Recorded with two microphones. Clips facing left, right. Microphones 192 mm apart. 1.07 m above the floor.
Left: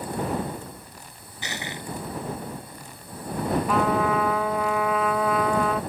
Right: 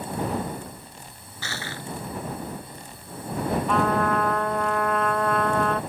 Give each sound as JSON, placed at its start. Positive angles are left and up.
{"t": 1.4, "sound": "crushing", "side_deg": 20}
{"t": 3.7, "sound": "a trumpet", "side_deg": 5}